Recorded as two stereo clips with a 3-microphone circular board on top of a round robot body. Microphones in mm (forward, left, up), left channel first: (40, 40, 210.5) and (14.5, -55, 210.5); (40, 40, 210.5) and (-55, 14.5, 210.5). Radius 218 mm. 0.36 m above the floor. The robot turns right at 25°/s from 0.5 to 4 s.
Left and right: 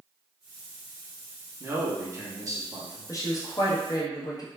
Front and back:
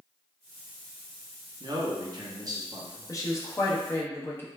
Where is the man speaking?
165° right, 1.0 m; by 3.1 s 125° right, 1.0 m.